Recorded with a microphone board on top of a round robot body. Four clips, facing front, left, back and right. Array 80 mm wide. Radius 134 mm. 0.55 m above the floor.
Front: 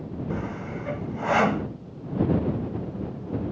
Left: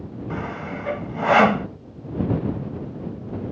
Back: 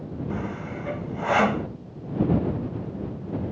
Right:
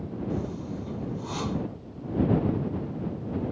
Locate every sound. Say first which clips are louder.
0.3 s sawing: left 5 dB, even; 90° left